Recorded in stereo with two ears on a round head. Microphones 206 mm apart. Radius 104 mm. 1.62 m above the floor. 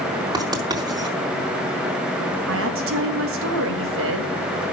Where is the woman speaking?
65° right (ahead or behind), 3 m.